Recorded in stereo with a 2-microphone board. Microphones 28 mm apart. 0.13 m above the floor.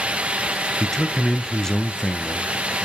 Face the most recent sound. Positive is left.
turn(degrees=25)  # may be behind; listen again after turning